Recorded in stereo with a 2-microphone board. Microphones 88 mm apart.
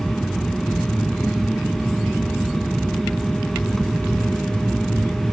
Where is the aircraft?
5° left (ahead or behind).